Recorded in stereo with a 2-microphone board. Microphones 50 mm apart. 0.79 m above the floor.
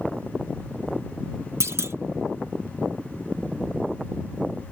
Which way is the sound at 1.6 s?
60° right (ahead or behind).